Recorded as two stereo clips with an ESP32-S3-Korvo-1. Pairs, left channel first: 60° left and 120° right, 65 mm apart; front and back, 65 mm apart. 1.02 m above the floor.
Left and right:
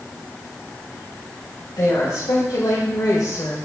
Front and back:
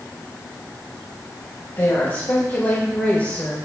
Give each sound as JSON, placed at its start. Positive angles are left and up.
{"t": 1.8, "sound": "a woman speaking", "azimuth_deg": 40, "distance_m": 4.5}